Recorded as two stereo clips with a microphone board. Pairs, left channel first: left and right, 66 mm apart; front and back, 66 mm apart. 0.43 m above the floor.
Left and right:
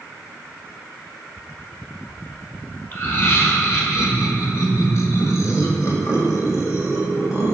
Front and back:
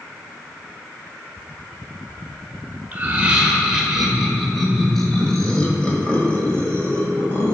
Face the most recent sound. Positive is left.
turn(degrees=60)